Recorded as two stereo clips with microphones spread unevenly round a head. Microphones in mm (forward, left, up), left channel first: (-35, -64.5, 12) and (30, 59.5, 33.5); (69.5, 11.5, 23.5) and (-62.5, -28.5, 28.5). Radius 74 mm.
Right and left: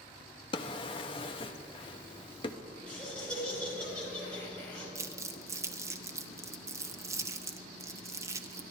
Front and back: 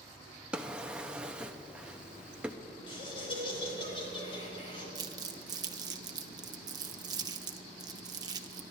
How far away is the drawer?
About 0.5 m.